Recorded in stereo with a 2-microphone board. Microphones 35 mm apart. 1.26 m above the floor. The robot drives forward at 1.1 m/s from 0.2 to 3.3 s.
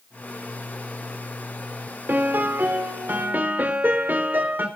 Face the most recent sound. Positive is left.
turn(degrees=-70)  # may be behind; listen again after turning